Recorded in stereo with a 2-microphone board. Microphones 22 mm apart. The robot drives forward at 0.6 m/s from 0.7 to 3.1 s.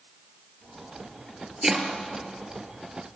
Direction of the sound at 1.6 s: 20° right (ahead or behind).